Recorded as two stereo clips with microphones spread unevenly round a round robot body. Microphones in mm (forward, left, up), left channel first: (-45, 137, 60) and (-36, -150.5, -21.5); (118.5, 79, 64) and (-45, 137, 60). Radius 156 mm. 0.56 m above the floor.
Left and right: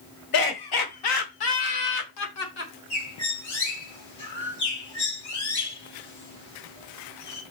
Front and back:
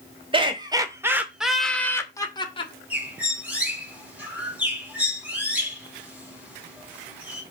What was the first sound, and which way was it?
Laughter, 105° left.